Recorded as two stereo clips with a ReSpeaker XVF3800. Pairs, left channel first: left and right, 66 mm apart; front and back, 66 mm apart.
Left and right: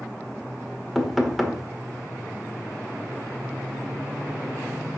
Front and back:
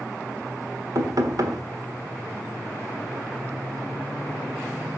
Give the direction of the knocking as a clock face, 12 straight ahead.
6 o'clock.